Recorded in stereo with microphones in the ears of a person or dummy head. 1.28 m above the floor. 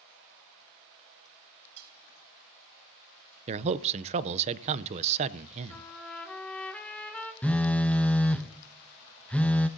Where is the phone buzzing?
5° left (ahead or behind), 0.6 m.